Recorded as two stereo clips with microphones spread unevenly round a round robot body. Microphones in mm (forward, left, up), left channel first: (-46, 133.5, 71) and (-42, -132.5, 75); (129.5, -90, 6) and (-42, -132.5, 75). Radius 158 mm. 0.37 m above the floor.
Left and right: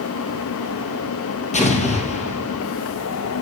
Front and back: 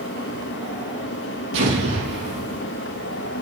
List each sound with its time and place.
1.5 s an explosion: 155° left, 3 m